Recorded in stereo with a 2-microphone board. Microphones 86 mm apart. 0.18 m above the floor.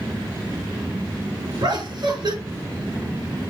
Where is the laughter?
65° right (ahead or behind), 2 m.